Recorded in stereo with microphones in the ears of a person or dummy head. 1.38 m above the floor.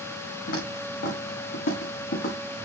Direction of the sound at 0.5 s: 60° left (ahead or behind).